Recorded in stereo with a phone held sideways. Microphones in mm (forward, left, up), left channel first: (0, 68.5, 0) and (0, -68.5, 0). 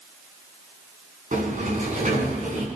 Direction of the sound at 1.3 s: 70° right (ahead or behind).